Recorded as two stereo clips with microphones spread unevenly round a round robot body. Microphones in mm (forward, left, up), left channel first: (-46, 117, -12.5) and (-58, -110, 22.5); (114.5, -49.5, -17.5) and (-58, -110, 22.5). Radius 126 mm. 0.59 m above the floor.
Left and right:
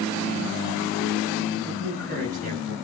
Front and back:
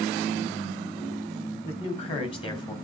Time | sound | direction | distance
1.6 | a man speaking | 30° right | 3.5 m